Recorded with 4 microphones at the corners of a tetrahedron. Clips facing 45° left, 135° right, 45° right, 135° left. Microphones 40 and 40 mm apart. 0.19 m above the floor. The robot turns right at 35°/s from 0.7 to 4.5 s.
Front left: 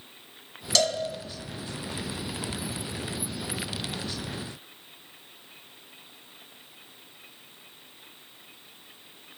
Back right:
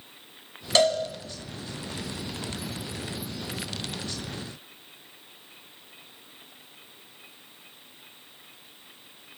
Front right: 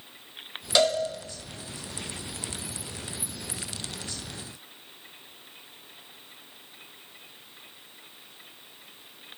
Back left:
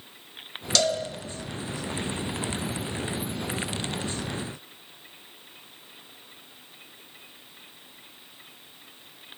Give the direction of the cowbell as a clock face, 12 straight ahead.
3 o'clock.